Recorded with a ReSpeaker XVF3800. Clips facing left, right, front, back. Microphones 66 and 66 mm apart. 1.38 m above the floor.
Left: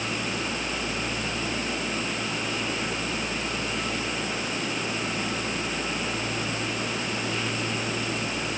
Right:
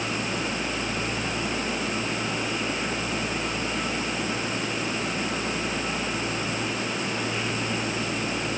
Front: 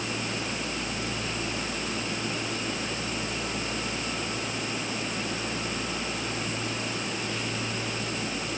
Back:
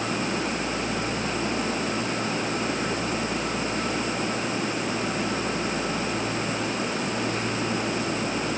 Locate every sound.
Only background noise.